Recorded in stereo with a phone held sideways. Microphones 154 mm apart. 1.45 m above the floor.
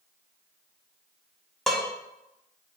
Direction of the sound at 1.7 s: Centre (ahead or behind).